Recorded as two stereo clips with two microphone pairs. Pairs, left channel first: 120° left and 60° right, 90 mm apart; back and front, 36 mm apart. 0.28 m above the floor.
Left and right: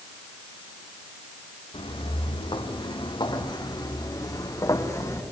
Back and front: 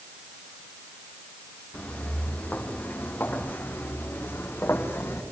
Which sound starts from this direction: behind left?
Footsteps, at 1.7 s.